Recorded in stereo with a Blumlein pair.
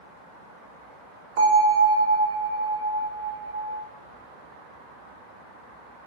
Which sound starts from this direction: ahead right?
A bell, at 1.4 s.